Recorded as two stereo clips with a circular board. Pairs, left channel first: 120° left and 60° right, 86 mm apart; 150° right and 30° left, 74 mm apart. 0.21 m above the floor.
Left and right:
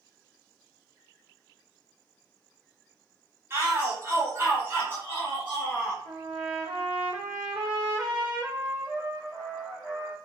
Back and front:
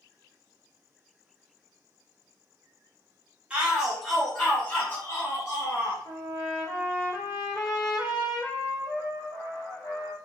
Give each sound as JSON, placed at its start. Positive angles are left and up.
{"t": 3.5, "sound": "a shout", "azimuth_deg": -35, "distance_m": 1.2}
{"t": 6.0, "sound": "a trumpet", "azimuth_deg": -140, "distance_m": 1.2}